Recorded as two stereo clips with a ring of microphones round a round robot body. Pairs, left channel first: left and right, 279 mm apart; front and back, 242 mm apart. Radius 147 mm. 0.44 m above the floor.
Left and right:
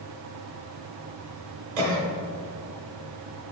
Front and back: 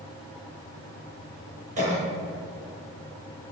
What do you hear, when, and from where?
1.8 s a cough: 120° right, 1.6 m